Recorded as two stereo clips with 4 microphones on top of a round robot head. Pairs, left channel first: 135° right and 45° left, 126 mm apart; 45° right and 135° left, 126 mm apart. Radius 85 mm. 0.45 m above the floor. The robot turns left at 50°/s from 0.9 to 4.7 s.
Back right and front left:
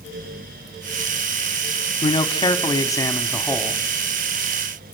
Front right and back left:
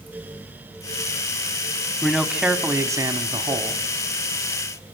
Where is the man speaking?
130° right, 1.2 m; by 3.8 s 140° left, 1.2 m.